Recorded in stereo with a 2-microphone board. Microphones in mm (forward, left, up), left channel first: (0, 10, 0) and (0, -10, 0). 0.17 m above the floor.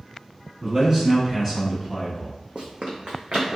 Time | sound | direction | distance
0.6 | a man speaking | 40° right (ahead or behind) | 1.4 m
2.5 | running footsteps | 60° right (ahead or behind) | 0.6 m